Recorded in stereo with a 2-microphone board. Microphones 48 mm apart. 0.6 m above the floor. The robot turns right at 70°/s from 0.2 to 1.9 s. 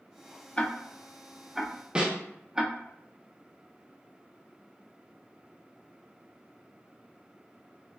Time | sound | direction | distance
0.6 | ticking | 20° left (ahead or behind) | 0.5 m
1.9 | a snare drum | 25° right (ahead or behind) | 0.7 m